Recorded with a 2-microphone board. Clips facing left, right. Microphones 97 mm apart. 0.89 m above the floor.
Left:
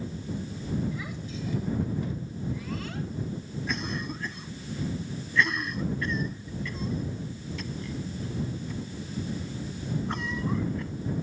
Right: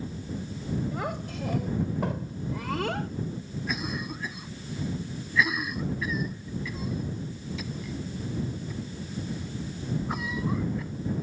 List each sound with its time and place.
0.9 s a child speaking: 60° right (ahead or behind); by 3.1 s 70° right (ahead or behind)
3.7 s a cough: 5° right (ahead or behind)